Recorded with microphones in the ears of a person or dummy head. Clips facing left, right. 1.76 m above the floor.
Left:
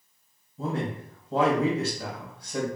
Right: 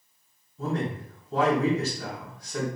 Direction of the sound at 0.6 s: 35° left (ahead or behind).